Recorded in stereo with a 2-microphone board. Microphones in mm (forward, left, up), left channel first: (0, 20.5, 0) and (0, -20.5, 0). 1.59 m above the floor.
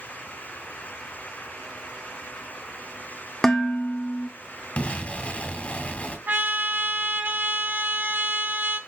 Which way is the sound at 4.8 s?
30° left (ahead or behind).